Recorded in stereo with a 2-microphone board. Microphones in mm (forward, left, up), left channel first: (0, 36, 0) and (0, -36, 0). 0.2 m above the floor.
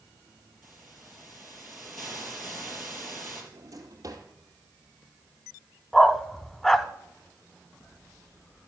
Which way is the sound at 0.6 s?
5° right (ahead or behind).